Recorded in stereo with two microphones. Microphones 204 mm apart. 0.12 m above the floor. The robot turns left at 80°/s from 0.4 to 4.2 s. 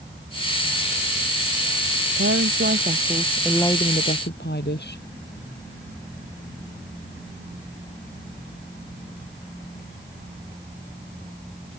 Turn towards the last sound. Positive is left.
turn(degrees=120)